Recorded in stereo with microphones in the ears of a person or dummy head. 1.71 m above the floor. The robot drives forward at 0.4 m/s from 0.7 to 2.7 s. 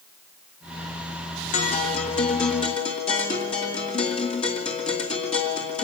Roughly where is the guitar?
Left.